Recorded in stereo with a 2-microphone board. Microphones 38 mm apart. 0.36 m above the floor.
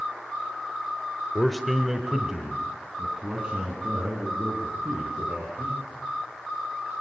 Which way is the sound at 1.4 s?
15° left (ahead or behind).